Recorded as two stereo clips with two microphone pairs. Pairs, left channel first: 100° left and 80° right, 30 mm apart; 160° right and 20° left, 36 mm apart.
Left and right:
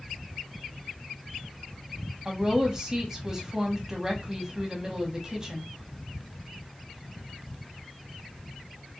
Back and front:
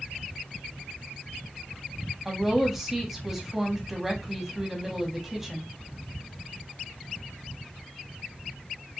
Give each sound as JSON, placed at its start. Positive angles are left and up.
{"t": 2.2, "sound": "a woman speaking", "azimuth_deg": -55, "distance_m": 1.1}